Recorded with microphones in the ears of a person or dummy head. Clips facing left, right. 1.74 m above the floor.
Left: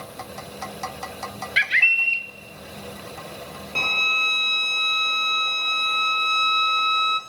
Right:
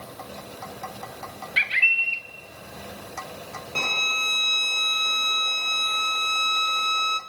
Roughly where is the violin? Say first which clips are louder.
Left 1 dB; centre.